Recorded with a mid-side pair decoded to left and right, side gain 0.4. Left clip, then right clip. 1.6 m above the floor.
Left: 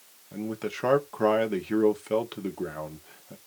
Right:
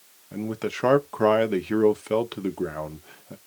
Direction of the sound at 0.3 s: 35° right.